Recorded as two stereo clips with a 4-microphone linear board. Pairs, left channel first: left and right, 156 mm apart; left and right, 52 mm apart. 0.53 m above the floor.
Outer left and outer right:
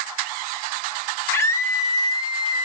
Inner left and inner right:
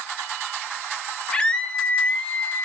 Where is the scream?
15° left (ahead or behind), 1.8 m; by 2.6 s 35° left (ahead or behind), 1.2 m.